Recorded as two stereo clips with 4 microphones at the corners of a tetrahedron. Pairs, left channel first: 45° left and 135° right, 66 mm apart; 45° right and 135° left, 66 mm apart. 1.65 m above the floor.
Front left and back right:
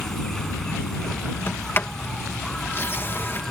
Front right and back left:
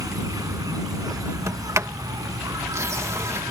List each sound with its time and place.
0.0 s an insect: 125° left
1.5 s a sliding door: 95° left